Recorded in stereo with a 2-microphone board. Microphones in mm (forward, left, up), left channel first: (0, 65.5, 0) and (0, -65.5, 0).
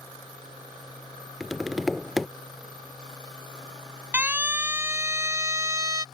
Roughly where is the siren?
Centre.